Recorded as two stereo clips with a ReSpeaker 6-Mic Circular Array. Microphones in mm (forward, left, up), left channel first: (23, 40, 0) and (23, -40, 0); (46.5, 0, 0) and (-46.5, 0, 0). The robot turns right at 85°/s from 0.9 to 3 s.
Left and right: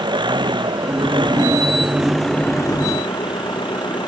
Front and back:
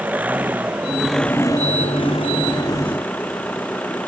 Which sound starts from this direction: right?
An engine running, at 0.0 s.